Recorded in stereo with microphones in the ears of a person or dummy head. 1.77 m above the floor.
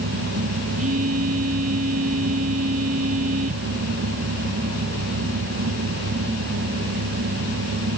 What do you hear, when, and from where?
0.8 s a phone buzzing: 45° right (ahead or behind)